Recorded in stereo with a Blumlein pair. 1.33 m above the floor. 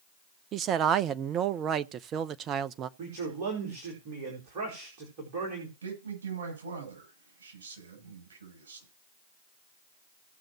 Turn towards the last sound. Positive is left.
turn(degrees=-65)